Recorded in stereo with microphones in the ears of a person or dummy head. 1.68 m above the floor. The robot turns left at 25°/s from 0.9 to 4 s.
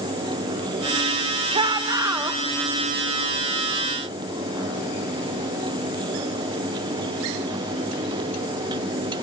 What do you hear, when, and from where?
1.5 s a shout: 30° right (ahead or behind), 1.7 m; by 2.4 s 5° right (ahead or behind), 1.7 m